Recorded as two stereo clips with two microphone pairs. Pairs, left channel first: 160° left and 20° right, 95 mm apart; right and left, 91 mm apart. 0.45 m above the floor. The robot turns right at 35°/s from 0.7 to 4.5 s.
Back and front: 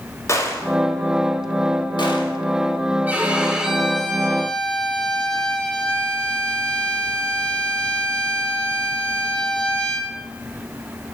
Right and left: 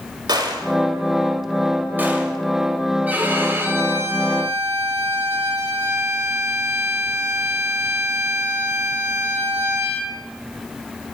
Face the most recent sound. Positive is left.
turn(degrees=85)